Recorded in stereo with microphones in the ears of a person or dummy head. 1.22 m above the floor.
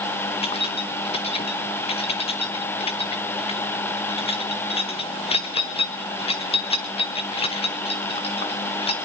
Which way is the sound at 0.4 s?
30° left (ahead or behind).